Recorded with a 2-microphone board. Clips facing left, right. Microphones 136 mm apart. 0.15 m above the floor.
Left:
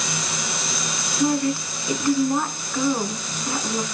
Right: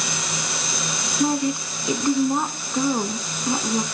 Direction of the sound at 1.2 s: 20° right (ahead or behind).